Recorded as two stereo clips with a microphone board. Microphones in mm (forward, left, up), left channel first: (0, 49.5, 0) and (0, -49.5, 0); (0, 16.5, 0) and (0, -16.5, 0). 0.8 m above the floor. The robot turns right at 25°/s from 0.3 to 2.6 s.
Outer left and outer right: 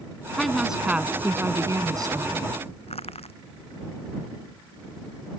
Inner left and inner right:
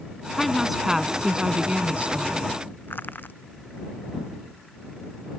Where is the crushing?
85° left.